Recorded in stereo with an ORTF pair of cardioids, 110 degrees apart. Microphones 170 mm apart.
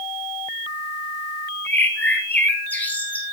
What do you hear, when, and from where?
1.6 s a bird: 10° left, 3 m